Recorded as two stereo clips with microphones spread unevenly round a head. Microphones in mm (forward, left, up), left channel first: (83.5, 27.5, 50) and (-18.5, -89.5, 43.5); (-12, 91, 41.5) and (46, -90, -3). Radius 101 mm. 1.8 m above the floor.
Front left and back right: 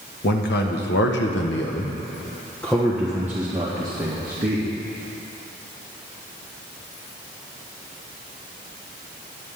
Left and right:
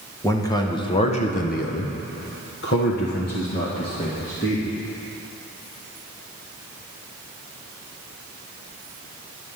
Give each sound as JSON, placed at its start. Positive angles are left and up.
{"t": 0.2, "sound": "a man speaking", "azimuth_deg": 35, "distance_m": 1.8}